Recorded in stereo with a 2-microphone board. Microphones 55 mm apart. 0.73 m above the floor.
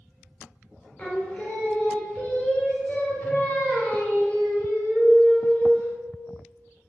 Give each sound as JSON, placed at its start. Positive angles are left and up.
{"t": 1.0, "sound": "singing", "side_deg": 25, "distance_m": 0.7}